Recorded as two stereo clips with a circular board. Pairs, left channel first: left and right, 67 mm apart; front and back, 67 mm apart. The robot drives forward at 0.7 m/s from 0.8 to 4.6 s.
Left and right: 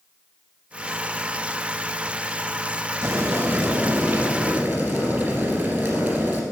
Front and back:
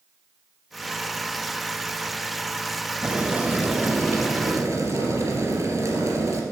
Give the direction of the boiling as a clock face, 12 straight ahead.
4 o'clock.